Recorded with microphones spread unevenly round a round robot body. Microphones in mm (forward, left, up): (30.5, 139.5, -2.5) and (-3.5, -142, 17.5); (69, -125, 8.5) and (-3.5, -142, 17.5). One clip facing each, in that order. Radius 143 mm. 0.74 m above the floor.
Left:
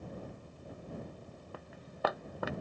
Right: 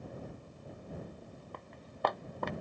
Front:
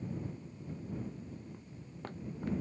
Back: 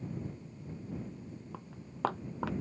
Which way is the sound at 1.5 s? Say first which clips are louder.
Left 1 dB, back 3 dB; 170° left.